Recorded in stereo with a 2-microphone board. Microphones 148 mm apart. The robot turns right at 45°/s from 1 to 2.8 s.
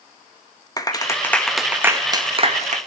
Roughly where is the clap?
Left.